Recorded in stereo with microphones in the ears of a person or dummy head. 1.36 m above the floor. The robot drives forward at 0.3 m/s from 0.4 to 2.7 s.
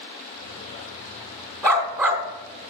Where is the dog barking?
15° right (ahead or behind), 1.5 m.